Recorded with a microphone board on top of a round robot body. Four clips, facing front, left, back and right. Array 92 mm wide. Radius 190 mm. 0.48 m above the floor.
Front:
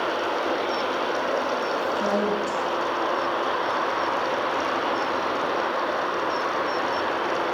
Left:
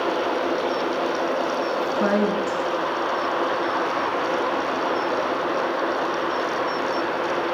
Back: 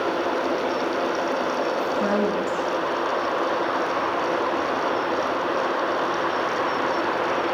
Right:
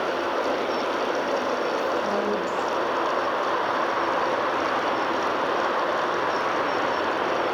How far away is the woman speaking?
About 9 m.